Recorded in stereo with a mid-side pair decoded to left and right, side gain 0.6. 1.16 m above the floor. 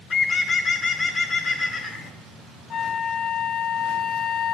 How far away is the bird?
About 3 m.